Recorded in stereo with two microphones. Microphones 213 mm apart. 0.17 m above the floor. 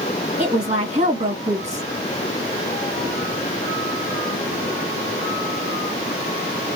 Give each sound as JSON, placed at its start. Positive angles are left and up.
{"t": 0.4, "sound": "a woman speaking", "side_deg": -30, "distance_m": 1.3}